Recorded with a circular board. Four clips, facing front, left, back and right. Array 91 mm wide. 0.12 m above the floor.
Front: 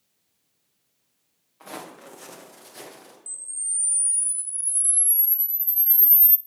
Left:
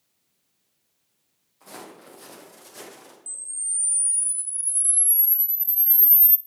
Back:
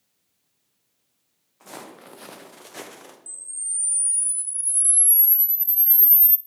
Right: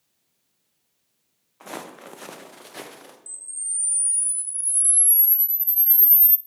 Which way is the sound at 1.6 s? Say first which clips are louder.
Right 6 dB, front 2 dB; 75° right.